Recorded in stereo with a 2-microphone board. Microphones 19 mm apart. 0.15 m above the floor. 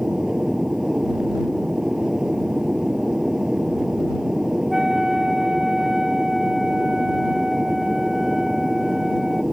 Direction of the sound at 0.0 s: 35° right (ahead or behind).